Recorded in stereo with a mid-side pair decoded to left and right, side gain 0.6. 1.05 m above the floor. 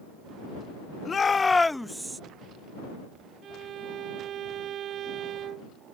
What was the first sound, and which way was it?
A shout, 30° left.